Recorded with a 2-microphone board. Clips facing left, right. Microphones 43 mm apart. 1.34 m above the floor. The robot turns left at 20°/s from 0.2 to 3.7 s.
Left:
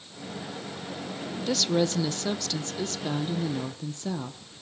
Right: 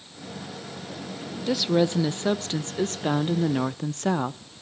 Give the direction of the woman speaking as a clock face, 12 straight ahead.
12 o'clock.